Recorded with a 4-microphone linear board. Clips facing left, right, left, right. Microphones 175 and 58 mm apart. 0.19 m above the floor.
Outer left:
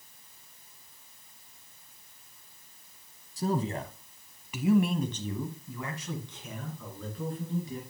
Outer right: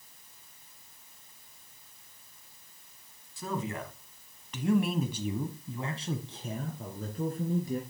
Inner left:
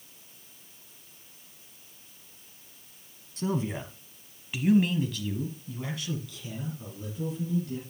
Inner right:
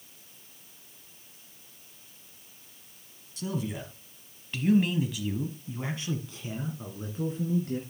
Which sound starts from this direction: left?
A man speaking, at 3.4 s.